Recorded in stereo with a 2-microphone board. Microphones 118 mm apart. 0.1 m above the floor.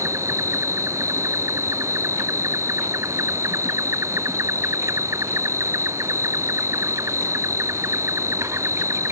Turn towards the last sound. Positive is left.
turn(degrees=-25)  # may be behind; listen again after turning